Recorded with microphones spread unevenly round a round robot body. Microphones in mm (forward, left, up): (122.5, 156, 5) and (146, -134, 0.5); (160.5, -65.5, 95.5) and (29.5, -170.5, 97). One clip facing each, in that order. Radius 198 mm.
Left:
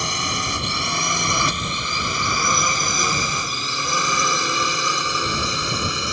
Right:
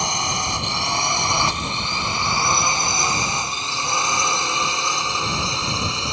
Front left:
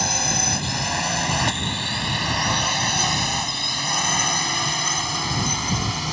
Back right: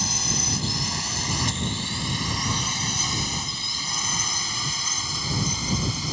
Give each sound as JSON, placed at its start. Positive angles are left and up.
{"t": 0.0, "sound": "a drone", "azimuth_deg": 25}